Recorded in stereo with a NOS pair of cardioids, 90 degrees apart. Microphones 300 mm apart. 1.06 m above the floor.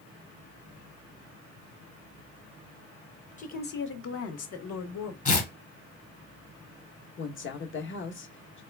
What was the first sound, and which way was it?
A woman speaking, 25° left.